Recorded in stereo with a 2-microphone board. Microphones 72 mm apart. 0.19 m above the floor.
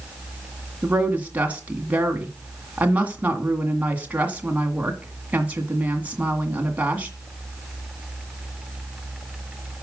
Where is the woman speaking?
20° right (ahead or behind), 2.0 m.